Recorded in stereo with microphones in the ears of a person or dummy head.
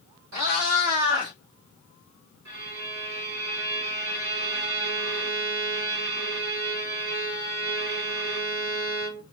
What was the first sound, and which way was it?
A cat meowing, 55° right (ahead or behind).